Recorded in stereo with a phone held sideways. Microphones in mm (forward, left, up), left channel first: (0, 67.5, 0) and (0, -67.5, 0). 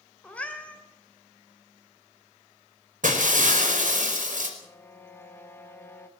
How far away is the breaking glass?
About 4.5 m.